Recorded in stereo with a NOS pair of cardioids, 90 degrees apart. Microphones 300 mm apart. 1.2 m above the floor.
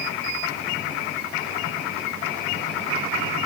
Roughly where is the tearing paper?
I don't hear tearing paper.